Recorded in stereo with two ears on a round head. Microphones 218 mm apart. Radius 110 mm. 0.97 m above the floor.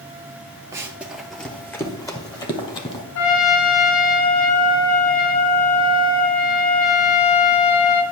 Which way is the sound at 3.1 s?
65° left (ahead or behind).